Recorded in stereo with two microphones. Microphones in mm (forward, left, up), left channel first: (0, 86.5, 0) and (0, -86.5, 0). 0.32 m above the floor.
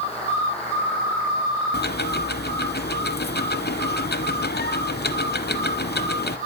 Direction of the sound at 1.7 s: 70° left (ahead or behind).